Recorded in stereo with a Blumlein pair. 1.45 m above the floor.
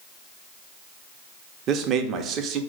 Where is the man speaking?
30° right, 0.7 m.